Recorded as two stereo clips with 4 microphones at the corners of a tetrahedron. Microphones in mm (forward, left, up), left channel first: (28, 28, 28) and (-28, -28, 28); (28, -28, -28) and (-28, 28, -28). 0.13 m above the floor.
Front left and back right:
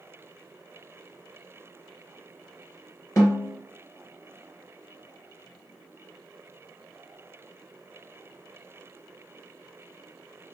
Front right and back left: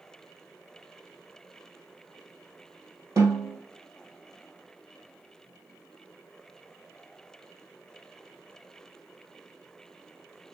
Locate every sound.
3.2 s a snare drum: 90° left, 1.9 m